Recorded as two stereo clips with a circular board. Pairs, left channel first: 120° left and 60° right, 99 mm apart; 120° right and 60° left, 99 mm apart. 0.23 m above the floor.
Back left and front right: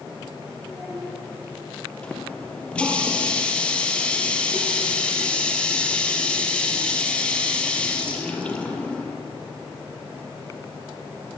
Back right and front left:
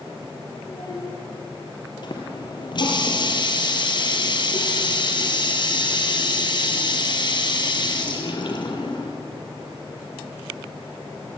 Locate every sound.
0.7 s a child speaking: 150° right, 4.5 m
2.0 s a running tap: 160° right, 4 m